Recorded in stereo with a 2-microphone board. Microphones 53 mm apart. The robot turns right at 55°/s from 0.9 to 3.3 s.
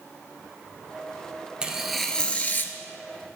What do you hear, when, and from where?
1.6 s tearing paper: 15° right, 0.6 m; by 2.7 s 45° left, 0.6 m